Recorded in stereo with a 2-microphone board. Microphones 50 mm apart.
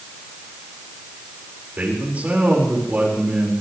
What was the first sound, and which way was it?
A man speaking, 30° right (ahead or behind).